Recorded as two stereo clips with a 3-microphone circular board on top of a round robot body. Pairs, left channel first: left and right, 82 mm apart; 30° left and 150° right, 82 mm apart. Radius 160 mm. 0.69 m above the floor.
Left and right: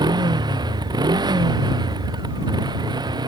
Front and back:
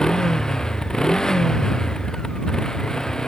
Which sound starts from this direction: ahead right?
A motorcycle, at 0.0 s.